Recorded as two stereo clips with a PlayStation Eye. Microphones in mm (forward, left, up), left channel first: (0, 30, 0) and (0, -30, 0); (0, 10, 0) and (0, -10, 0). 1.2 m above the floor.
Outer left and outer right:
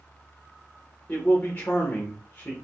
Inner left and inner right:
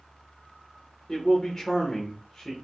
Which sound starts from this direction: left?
A man speaking, at 1.1 s.